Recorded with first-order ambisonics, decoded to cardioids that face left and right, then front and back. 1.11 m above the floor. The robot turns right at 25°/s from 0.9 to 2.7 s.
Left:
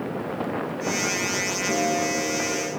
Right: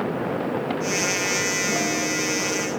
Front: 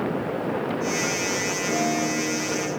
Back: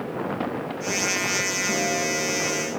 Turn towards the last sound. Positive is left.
turn(degrees=140)